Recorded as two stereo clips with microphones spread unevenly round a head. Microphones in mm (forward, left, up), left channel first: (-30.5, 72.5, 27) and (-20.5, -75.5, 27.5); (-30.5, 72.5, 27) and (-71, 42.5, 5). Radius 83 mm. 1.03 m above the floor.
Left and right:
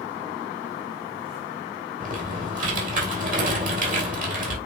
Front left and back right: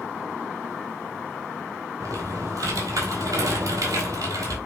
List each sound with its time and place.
2.0 s typing on a keyboard: 120° right, 3 m